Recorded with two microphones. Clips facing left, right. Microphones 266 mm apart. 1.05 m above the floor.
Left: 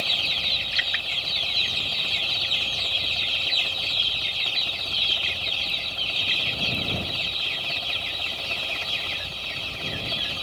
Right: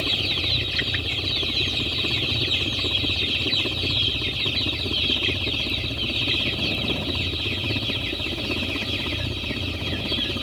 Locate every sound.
0.0 s a helicopter: 65° right (ahead or behind); by 10.4 s 60° right (ahead or behind)